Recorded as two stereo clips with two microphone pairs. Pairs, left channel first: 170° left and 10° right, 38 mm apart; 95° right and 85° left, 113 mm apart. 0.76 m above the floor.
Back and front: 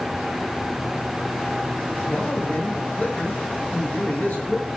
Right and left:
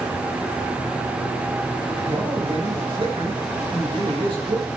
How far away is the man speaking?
About 5 m.